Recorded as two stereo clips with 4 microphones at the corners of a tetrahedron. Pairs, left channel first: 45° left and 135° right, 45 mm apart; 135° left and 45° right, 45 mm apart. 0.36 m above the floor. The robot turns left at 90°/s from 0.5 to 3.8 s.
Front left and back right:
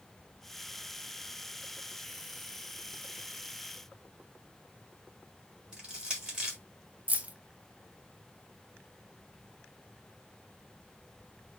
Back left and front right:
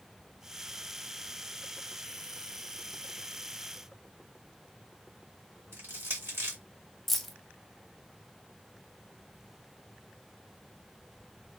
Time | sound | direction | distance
5.7 | crushing | 60° right | 1.9 m
7.1 | keys jangling | 140° right | 0.6 m